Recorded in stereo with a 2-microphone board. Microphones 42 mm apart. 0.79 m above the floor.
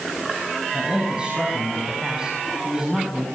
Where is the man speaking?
25° right (ahead or behind), 7 m; by 3.2 s 15° right (ahead or behind), 7.5 m.